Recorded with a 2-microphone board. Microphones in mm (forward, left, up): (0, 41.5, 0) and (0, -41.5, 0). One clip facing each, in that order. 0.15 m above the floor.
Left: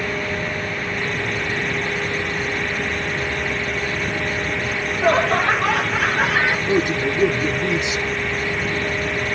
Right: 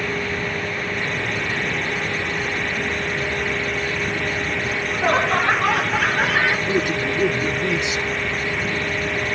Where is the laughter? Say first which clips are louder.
Left 3 dB; 15° right (ahead or behind), 1.4 m; by 6.6 s 10° left (ahead or behind), 1.9 m.